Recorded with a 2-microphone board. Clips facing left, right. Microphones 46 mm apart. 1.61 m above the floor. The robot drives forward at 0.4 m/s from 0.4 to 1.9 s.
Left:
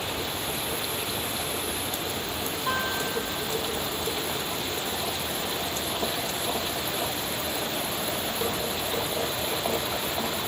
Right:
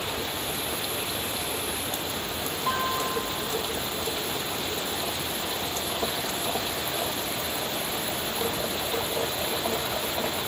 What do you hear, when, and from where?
2.7 s a guitar: 55° right (ahead or behind), 5.5 m